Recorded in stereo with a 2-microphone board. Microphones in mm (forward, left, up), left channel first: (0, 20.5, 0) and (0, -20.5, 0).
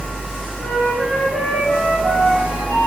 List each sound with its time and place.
0.6 s a flute: 75° left (ahead or behind), 3.5 m